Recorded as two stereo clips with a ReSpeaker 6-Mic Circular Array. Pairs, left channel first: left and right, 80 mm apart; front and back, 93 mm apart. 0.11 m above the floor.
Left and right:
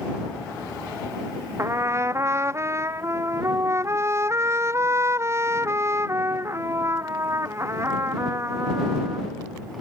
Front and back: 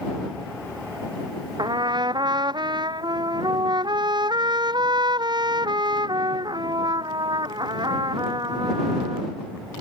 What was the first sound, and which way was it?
A trumpet, 145° right.